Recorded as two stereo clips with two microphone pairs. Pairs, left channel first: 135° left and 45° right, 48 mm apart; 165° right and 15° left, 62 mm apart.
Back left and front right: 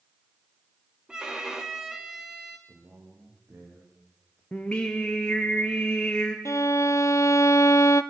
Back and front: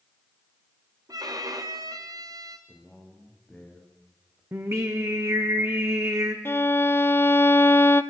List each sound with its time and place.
1.1 s a violin: 30° left, 2.5 m
2.7 s a man speaking: 85° right, 7.5 m
4.5 s singing: 60° left, 3 m
6.5 s a violin: 145° left, 0.9 m